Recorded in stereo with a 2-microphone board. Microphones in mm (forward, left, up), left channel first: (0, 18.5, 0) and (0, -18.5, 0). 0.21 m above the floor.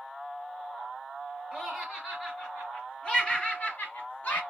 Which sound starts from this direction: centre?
Laughter, at 1.5 s.